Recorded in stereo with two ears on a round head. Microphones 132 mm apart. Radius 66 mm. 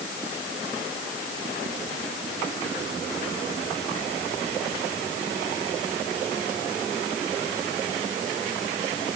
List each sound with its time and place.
Only background noise.